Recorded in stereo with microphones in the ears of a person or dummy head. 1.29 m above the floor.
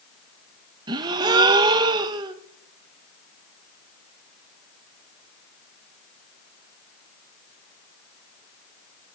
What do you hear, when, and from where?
0.9 s a gasp: 25° right (ahead or behind), 0.8 m